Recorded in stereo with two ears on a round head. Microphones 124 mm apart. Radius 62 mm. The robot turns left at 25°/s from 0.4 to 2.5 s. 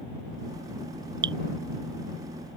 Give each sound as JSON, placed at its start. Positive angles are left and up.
{"t": 1.2, "sound": "dripping", "side_deg": -35}